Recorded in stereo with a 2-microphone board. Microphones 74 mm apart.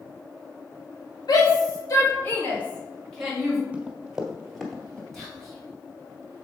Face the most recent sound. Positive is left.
turn(degrees=5)  # may be behind; listen again after turning